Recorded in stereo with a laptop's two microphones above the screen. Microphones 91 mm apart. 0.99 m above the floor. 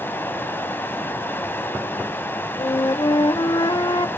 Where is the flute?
55° left (ahead or behind), 0.7 m.